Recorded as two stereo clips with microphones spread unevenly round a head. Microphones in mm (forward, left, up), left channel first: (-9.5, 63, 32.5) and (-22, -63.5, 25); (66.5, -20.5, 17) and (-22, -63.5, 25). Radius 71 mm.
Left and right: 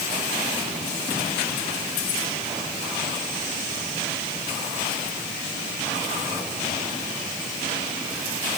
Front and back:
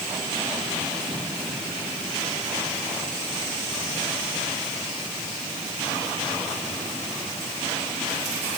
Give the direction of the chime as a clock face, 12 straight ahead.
I don't hear a chime.